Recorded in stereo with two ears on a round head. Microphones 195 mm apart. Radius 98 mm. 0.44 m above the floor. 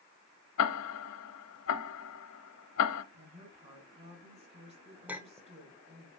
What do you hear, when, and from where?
0.6 s ticking: 75° left (ahead or behind), 0.8 m
3.1 s a woman speaking: 30° right (ahead or behind), 4.5 m
5.1 s a clink: 10° right (ahead or behind), 1.0 m